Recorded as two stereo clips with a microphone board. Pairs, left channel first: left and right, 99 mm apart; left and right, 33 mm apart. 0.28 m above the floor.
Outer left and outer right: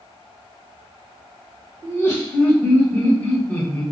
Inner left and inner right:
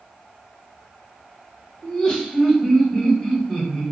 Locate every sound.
1.8 s laughter: 25° left (ahead or behind), 1.4 m; by 3.8 s 10° left (ahead or behind), 1.1 m